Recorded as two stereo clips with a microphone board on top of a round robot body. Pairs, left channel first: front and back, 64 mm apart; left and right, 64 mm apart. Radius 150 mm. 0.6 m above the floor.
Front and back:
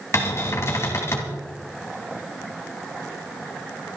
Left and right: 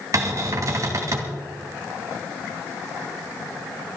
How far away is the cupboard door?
About 1.6 m.